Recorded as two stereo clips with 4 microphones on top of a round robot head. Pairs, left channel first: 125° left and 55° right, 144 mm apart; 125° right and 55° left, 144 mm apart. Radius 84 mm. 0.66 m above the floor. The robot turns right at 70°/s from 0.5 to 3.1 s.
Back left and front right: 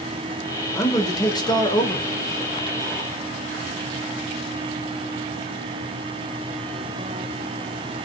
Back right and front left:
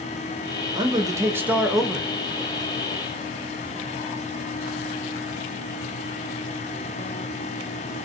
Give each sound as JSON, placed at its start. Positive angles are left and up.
{"t": 0.8, "sound": "a man speaking", "azimuth_deg": 70, "distance_m": 1.0}